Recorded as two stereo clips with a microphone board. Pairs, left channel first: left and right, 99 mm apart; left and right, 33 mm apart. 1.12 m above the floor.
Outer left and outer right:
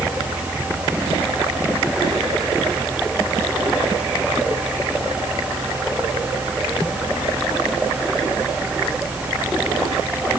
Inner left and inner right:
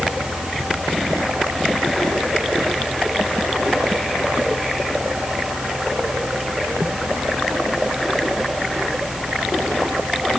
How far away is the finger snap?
No finger snap in this recording.